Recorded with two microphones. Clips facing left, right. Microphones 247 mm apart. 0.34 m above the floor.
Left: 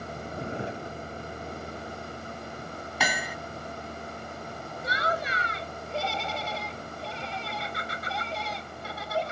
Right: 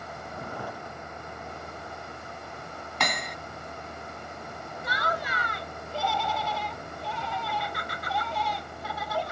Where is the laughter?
30° left (ahead or behind).